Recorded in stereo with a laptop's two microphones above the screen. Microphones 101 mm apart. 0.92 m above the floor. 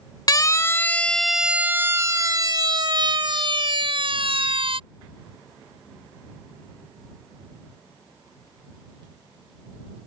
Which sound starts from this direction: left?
A siren, at 0.3 s.